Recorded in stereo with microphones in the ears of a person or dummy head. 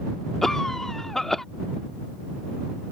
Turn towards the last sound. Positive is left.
turn(degrees=5)  # may be behind; listen again after turning